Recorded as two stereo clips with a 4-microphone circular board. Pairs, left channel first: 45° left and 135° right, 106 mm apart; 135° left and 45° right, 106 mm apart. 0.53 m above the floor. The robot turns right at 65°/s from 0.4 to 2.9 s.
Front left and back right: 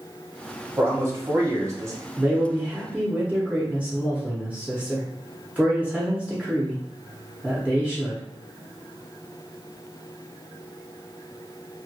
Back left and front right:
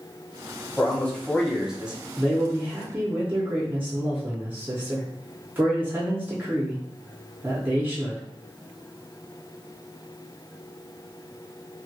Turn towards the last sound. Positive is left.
turn(degrees=-80)